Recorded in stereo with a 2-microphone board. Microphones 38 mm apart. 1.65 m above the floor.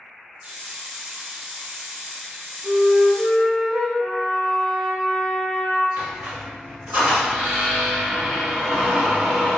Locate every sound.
0.4 s a hiss: 45° right (ahead or behind), 0.8 m
2.6 s a flute: 75° right (ahead or behind), 1.0 m
4.0 s a trumpet: 45° right (ahead or behind), 0.9 m
6.0 s a squeak: 55° right (ahead or behind), 1.6 m